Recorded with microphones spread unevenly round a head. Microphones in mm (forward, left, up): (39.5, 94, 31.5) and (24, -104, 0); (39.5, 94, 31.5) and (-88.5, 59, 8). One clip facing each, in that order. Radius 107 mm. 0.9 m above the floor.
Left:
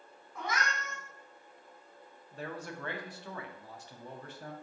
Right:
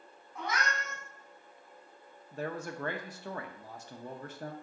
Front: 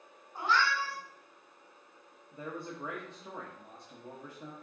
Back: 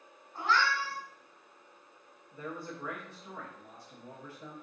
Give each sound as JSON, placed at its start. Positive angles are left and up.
{"t": 0.3, "sound": "a cat meowing", "azimuth_deg": 85, "distance_m": 2.5}
{"t": 2.3, "sound": "a man speaking", "azimuth_deg": -60, "distance_m": 0.5}